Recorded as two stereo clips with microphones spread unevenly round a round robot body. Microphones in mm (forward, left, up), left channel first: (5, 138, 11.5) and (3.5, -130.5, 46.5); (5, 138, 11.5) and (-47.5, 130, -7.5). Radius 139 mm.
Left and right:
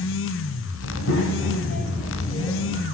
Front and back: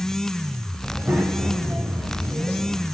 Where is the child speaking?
125° left, 3 m; by 2.8 s 170° left, 2.5 m.